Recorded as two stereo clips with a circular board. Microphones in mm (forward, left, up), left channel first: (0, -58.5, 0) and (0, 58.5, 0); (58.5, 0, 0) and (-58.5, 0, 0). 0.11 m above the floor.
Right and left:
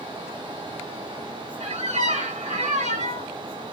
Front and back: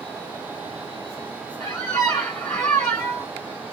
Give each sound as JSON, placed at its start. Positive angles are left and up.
{"t": 1.6, "sound": "a squeak", "azimuth_deg": 75, "distance_m": 1.9}